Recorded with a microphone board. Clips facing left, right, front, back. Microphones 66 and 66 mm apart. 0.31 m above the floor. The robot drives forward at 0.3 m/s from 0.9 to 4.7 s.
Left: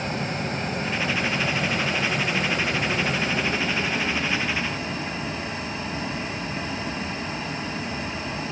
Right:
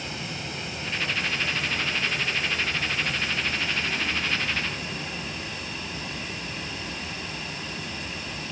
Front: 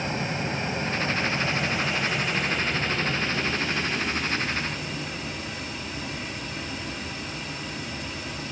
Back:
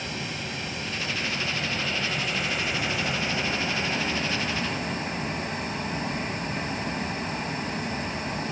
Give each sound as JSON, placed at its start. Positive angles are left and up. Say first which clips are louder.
{"t": 0.0, "sound": "running water", "louder": "left 7 dB, front 5 dB", "azimuth_deg": 50, "distance_m": 0.8}